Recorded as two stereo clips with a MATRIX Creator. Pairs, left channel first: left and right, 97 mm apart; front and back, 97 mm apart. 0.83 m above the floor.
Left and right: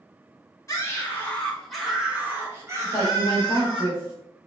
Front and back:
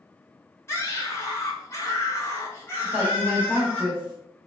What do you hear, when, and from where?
0.7 s a scream: 50° left, 1.2 m; by 3.8 s 65° right, 1.5 m
2.8 s a woman speaking: 120° left, 1.0 m